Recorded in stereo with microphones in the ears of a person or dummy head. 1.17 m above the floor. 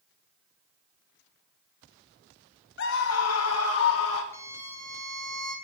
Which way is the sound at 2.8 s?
65° left (ahead or behind).